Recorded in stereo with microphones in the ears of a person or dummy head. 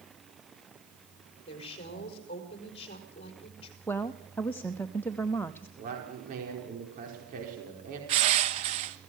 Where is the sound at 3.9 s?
10° left (ahead or behind), 0.6 m.